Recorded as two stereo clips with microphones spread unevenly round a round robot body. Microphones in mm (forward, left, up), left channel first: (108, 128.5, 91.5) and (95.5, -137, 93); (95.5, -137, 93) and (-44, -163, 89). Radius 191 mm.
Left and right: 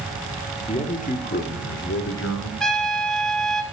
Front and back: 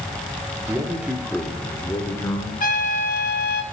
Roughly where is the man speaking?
Behind left.